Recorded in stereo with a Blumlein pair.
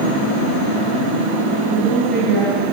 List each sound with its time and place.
1.7 s a woman speaking: straight ahead, 6.5 m